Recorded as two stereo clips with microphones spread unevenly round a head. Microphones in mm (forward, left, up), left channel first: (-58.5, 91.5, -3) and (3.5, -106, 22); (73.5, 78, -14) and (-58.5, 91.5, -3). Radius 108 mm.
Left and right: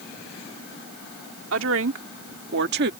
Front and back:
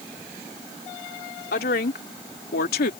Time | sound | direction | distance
1.5 | a woman speaking | 35° right | ?